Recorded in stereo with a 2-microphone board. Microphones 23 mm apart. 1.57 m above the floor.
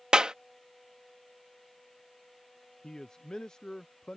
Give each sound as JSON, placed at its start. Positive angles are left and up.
{"t": 0.1, "sound": "a clap", "side_deg": -40}
{"t": 2.8, "sound": "a man speaking", "side_deg": 35}